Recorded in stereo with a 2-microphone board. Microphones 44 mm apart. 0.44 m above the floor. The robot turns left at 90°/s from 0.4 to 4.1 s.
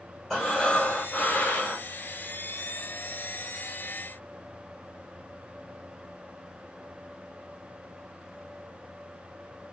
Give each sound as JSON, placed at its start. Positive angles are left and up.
{"t": 0.3, "sound": "breathing", "azimuth_deg": 165, "distance_m": 1.4}